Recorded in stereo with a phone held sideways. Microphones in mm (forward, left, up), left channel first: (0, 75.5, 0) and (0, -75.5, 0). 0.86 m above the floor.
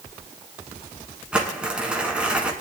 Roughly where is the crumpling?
Centre.